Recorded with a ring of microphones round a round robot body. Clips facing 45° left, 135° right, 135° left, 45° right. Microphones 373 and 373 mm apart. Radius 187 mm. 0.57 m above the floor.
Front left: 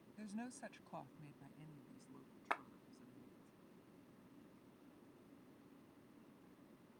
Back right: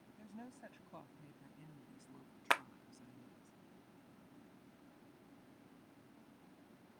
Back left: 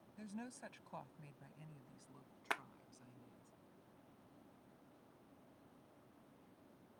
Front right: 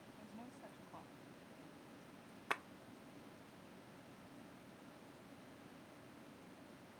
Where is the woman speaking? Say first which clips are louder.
Front left 4 dB, back left 7 dB; 90° left; by 3.5 s 160° left.